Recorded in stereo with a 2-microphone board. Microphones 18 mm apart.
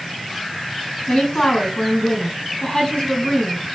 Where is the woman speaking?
70° left (ahead or behind), 3.5 m.